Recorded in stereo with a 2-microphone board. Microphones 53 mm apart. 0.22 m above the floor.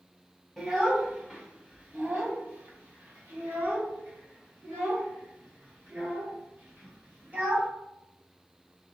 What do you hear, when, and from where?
0.6 s a child speaking: 10° right (ahead or behind), 1.2 m; by 7.7 s 35° right (ahead or behind), 3.5 m